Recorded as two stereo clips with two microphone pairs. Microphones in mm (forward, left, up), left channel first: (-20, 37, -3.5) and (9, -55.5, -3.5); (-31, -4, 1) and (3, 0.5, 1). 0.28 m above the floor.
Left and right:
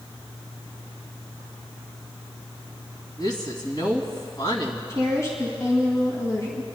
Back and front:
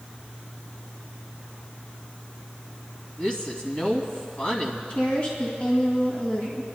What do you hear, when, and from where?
3.2 s a woman speaking: 140° left, 2.5 m
4.9 s a woman speaking: 160° left, 2 m